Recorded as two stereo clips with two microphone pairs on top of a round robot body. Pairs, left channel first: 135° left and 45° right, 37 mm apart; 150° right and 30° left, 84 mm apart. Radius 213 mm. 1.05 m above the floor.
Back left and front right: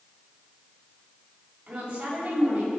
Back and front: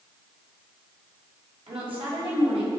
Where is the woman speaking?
20° left, 6 m; by 2.7 s 15° left, 6.5 m.